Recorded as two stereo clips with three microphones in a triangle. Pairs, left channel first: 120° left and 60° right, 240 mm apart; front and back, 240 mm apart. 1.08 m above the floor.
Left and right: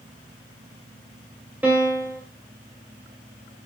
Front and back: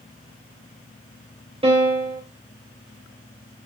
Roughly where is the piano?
Behind right.